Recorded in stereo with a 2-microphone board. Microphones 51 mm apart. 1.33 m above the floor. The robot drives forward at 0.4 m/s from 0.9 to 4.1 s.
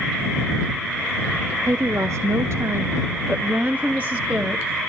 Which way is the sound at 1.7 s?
70° right (ahead or behind).